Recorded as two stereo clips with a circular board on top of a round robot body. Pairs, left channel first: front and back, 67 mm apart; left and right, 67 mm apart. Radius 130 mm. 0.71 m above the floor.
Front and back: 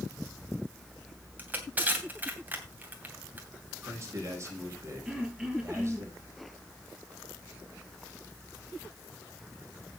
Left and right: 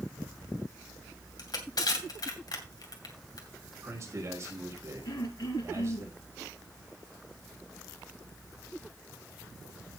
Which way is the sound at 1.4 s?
115° left.